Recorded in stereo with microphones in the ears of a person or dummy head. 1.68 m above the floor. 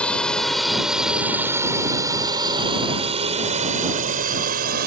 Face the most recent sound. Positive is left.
turn(degrees=-55)  # may be behind; listen again after turning